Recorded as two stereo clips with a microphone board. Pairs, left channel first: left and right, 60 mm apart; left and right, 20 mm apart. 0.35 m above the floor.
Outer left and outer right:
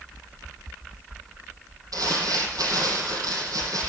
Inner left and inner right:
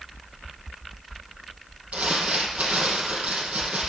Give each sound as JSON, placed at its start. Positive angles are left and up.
{"t": 1.9, "sound": "crumpling", "side_deg": -75, "distance_m": 5.0}